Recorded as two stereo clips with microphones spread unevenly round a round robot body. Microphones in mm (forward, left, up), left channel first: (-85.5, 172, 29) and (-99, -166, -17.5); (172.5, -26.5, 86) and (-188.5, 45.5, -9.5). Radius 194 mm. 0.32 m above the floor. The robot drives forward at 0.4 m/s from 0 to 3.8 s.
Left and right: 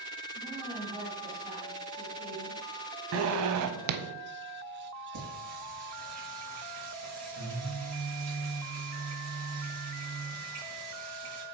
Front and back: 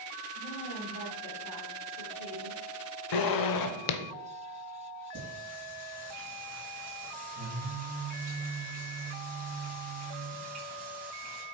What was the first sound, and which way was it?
A woman speaking, 15° right.